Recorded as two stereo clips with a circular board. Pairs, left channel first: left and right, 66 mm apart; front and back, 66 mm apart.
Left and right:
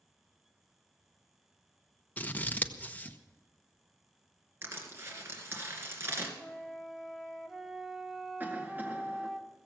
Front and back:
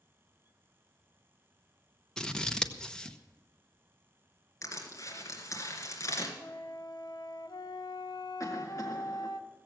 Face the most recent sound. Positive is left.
turn(degrees=-30)